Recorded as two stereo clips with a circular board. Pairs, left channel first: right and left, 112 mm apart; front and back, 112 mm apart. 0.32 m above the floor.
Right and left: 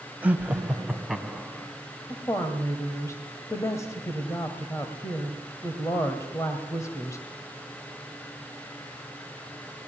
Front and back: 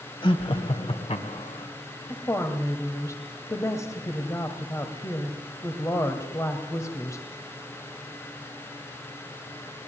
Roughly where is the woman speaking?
Ahead right.